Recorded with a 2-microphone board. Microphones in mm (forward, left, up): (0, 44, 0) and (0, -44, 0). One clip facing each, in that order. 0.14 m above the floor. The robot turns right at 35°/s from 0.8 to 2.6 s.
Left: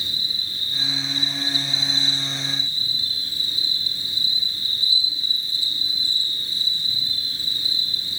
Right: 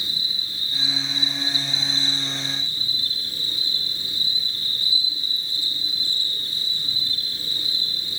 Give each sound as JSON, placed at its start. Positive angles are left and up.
{"t": 0.0, "sound": "an insect", "azimuth_deg": -175, "distance_m": 7.0}